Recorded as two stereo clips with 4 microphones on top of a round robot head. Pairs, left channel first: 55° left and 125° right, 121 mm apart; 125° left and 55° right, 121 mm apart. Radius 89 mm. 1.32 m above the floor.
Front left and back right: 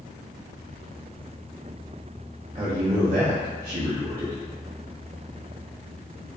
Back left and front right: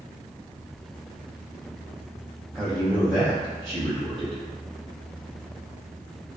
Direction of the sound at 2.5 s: 150° right.